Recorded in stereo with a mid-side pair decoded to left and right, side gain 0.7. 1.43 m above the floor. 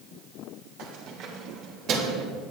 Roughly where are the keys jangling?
Ahead right.